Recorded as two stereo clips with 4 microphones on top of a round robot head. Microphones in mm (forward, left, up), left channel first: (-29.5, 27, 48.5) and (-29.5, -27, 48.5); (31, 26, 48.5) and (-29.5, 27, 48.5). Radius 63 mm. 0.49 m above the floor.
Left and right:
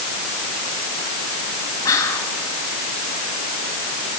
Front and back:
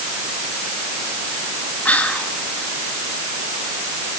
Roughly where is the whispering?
Ahead left.